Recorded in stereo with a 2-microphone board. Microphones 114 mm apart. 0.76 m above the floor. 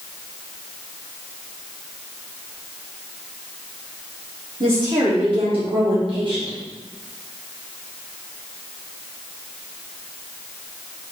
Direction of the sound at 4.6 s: 45° right (ahead or behind).